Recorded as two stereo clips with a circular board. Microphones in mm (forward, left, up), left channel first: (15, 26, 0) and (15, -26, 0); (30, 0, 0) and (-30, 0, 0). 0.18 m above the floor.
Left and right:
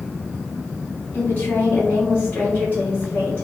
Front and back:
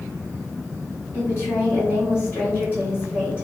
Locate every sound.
1.1 s a woman speaking: 35° left, 2.0 m